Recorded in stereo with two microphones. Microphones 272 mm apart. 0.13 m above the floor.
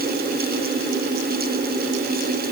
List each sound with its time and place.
Only background noise.